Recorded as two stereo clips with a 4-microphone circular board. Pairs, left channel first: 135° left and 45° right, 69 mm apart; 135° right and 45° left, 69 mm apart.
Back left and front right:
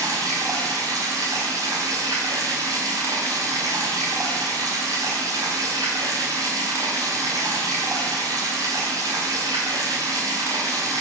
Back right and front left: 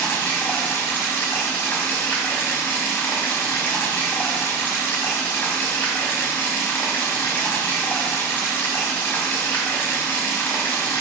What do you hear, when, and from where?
0.0 s running water: 75° right, 5 m